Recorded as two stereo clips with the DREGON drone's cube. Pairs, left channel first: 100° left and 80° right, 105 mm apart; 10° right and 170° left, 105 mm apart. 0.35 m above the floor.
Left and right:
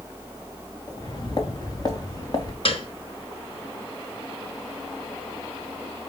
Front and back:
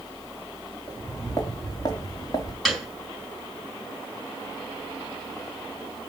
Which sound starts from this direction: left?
A piano, at 2.6 s.